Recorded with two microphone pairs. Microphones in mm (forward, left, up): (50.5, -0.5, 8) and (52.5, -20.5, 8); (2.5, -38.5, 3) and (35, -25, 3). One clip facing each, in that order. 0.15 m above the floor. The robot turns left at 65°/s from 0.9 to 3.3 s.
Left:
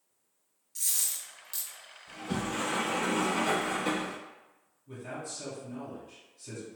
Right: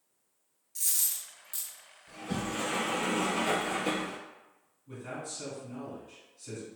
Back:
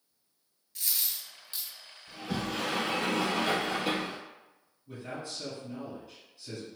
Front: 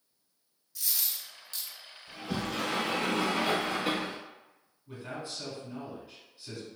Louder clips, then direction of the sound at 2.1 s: Left 1 dB, even; 155° left.